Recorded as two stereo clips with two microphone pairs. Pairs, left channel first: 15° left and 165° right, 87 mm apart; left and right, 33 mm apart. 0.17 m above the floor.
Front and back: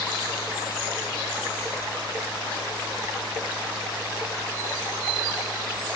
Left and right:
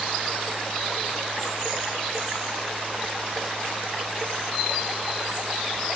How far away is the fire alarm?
No fire alarm in this recording.